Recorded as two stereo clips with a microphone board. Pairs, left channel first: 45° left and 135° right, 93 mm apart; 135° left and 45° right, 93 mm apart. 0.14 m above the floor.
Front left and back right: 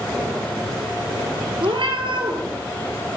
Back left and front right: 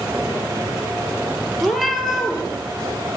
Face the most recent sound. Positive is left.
turn(degrees=-135)